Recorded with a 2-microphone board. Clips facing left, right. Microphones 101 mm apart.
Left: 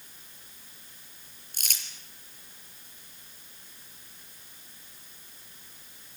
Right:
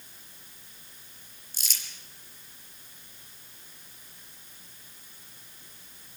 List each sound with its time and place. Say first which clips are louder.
1.5 s crumpling: left 1 dB; 55° left (ahead or behind), 5 m